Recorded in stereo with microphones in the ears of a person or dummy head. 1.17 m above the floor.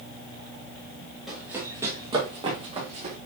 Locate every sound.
1.3 s running footsteps: 5° right (ahead or behind), 2 m; by 3.2 s 40° right (ahead or behind), 3.5 m